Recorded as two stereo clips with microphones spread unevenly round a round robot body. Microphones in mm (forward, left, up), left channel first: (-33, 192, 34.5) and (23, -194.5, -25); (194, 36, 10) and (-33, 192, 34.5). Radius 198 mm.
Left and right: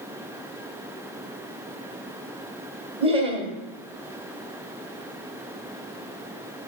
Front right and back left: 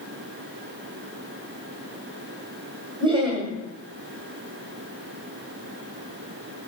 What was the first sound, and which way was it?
Laughter, 140° right.